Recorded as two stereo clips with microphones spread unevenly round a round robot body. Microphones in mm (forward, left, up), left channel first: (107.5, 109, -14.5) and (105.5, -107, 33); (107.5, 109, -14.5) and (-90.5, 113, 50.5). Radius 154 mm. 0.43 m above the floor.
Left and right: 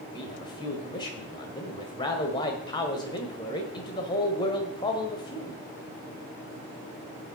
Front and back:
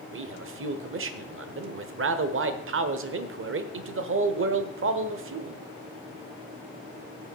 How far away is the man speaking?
About 1.3 m.